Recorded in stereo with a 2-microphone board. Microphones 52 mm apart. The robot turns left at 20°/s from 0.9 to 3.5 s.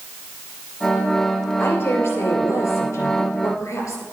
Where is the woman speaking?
130° left, 2.5 m; by 4.0 s 90° left, 2.5 m.